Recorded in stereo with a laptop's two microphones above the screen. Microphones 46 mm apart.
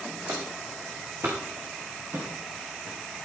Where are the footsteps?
60° right (ahead or behind), 3.5 m.